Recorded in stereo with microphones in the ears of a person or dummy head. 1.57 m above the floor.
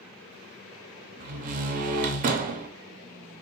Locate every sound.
1.2 s a door slam: 40° right (ahead or behind), 0.5 m